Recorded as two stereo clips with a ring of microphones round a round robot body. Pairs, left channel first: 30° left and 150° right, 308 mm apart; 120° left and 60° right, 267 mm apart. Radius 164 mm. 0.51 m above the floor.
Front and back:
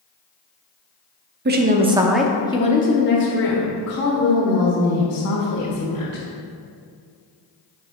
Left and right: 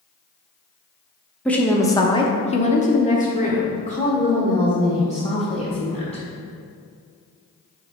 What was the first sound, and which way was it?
A woman speaking, 155° right.